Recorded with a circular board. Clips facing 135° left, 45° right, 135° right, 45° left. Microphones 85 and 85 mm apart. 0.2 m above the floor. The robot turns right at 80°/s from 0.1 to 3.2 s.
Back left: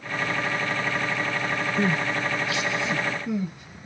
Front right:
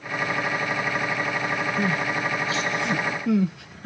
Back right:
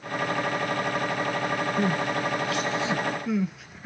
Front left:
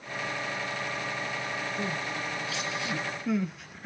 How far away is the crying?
About 0.5 m.